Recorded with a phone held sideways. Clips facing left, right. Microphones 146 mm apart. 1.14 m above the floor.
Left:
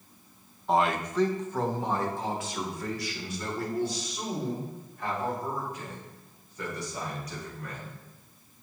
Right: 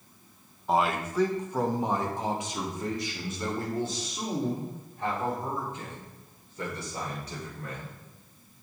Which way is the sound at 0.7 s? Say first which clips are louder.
Left 1 dB; centre (ahead or behind).